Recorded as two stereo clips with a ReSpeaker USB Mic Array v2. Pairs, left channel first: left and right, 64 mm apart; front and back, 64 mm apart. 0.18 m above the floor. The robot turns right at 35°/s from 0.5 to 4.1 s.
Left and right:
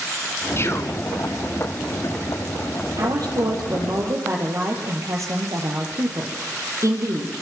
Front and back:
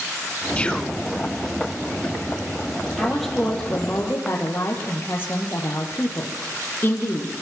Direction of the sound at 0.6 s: 65° left.